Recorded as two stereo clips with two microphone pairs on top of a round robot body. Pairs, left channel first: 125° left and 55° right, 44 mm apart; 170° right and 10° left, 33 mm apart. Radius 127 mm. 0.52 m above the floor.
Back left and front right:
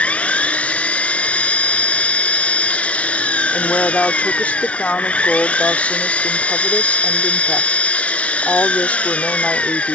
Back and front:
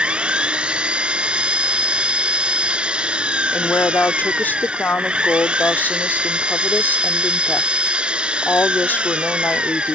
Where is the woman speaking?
170° right.